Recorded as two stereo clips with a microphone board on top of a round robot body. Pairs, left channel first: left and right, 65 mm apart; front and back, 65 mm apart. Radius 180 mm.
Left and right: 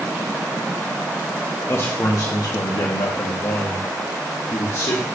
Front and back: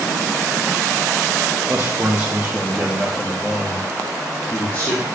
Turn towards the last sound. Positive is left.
turn(degrees=55)